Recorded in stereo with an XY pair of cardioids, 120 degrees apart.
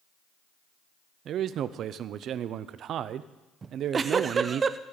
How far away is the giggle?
About 0.6 m.